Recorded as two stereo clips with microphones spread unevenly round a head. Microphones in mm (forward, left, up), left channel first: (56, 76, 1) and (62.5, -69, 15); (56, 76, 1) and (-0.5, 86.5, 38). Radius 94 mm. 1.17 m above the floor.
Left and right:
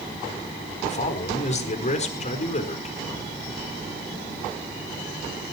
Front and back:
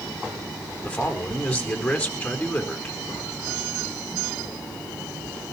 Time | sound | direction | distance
0.8 | a man speaking | 55° left | 4.5 m